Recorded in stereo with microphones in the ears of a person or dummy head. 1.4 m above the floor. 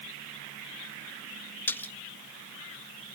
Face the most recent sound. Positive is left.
turn(degrees=10)  # may be behind; listen again after turning